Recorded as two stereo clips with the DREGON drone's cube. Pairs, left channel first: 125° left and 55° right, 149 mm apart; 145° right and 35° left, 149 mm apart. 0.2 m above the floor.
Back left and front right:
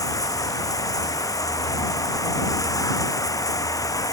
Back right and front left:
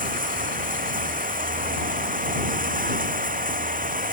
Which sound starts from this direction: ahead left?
Running water, at 0.0 s.